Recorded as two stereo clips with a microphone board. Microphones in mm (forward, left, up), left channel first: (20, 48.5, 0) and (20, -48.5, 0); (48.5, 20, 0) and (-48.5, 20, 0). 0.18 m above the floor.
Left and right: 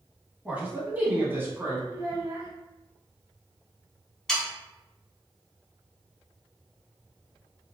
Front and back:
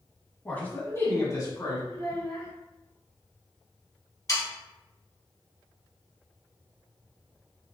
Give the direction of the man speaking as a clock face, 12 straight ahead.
1 o'clock.